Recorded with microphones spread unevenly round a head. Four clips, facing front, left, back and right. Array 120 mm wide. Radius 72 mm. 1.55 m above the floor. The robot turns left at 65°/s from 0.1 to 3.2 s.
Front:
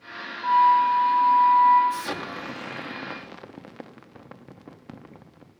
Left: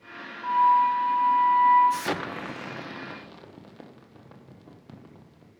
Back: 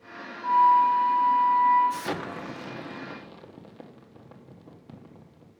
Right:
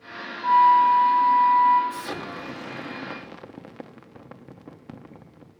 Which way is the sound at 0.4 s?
35° right.